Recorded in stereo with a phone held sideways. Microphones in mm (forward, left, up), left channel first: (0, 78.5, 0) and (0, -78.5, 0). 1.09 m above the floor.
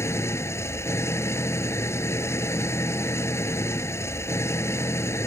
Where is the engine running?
15° left (ahead or behind).